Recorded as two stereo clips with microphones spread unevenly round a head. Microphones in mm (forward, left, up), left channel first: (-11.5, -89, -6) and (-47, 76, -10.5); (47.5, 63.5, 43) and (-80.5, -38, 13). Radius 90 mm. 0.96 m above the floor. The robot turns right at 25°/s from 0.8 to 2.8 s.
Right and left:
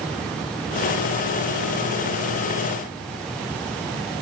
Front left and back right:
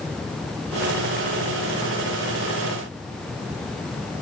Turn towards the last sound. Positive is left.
No sound to turn to.